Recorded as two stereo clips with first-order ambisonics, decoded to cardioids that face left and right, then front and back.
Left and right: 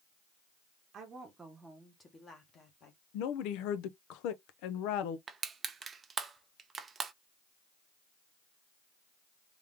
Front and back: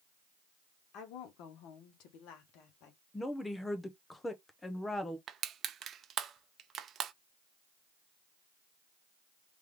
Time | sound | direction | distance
0.9 | a woman speaking | 30° right | 1.0 m
3.1 | a woman speaking | 80° left | 0.6 m
5.3 | crushing | 145° right | 0.5 m